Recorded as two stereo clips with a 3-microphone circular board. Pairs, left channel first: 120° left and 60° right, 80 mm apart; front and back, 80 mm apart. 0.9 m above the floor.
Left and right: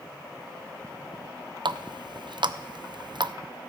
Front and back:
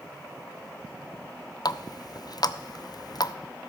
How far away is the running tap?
About 0.5 m.